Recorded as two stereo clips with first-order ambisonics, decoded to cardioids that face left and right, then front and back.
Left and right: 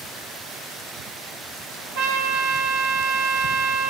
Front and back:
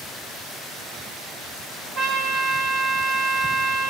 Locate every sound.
1.9 s a trumpet: 100° right, 1.6 m